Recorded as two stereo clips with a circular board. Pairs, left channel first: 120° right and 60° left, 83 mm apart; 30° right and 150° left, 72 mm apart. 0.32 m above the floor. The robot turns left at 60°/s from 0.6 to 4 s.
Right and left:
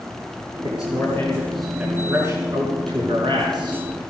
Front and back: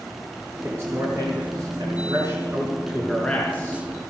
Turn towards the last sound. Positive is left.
turn(degrees=5)